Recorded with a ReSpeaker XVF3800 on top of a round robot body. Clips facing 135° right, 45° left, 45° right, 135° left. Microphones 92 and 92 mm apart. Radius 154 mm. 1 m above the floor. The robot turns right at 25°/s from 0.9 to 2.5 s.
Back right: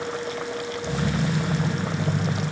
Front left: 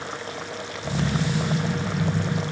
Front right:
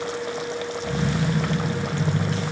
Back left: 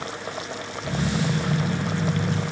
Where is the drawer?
I don't hear a drawer.